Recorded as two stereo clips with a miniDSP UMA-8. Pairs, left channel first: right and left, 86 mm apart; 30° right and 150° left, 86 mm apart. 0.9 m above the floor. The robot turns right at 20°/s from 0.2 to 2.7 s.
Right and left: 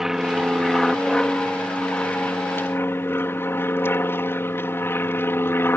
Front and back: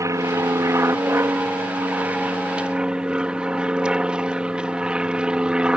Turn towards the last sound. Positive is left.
turn(degrees=-135)